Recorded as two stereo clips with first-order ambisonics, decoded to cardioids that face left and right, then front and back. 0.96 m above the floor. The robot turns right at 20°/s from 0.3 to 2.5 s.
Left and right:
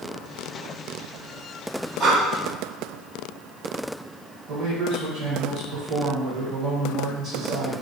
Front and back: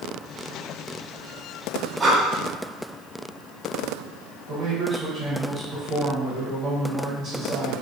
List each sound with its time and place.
2.0 s breathing: 115° right, 0.7 m; by 2.2 s 110° right, 0.7 m
4.5 s a man speaking: 135° right, 1.0 m